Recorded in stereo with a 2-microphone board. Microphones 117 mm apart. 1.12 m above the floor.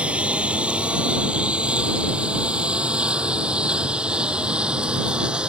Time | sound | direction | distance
0.0 | a lawn mower | 10° right (ahead or behind) | ?